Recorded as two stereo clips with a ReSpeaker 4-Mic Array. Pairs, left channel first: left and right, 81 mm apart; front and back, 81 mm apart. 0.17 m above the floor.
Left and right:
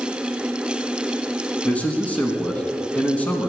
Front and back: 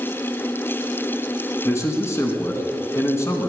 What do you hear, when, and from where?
1.6 s a man speaking: 30° left, 2.0 m